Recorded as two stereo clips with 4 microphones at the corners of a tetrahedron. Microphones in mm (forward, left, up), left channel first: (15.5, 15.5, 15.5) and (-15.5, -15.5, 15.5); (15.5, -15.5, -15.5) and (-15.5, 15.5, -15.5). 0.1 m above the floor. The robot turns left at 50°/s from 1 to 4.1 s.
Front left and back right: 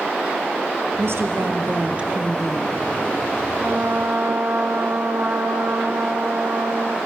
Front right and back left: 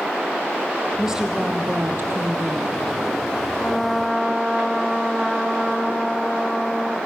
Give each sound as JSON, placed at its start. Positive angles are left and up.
{"t": 1.0, "sound": "a woman speaking", "azimuth_deg": -145, "distance_m": 2.5}
{"t": 3.6, "sound": "a trumpet", "azimuth_deg": -115, "distance_m": 2.0}